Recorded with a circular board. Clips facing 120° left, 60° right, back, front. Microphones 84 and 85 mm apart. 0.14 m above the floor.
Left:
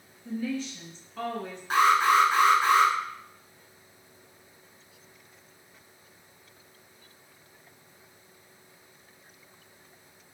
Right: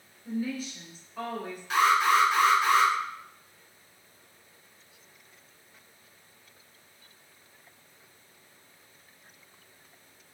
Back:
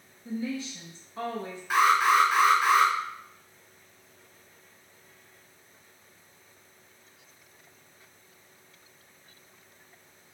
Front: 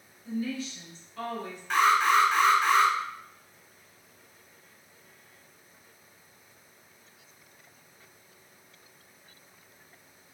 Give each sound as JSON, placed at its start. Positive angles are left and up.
{"t": 0.2, "sound": "a woman speaking", "azimuth_deg": -140, "distance_m": 1.3}
{"t": 1.7, "sound": "an alarm", "azimuth_deg": 100, "distance_m": 1.0}